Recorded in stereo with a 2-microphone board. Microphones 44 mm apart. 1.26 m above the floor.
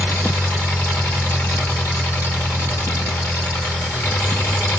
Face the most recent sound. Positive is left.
turn(degrees=60)  # may be behind; listen again after turning